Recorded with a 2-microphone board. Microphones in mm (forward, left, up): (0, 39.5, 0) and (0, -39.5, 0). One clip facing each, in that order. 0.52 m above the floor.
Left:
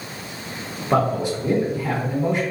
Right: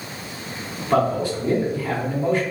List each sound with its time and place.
0.9 s a man speaking: 20° left (ahead or behind), 1.8 m